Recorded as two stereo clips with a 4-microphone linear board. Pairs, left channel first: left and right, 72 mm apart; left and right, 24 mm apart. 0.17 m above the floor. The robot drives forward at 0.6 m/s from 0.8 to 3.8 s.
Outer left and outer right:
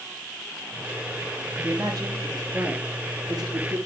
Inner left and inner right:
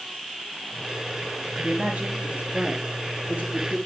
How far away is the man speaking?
About 4.5 m.